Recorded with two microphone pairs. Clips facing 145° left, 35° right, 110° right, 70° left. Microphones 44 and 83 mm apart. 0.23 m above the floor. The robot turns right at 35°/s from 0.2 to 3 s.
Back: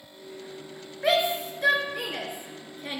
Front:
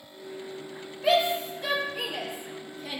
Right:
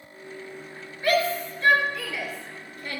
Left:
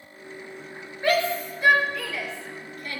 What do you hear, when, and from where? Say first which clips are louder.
1.0 s a shout: front 1 dB, even; 130° left, 3 m; by 3.0 s 160° right, 3 m